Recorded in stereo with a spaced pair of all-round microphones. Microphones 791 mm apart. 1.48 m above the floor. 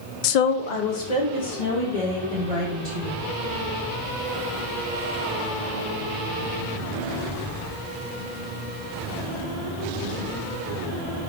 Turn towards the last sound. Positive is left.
turn(degrees=45)  # may be behind; listen again after turning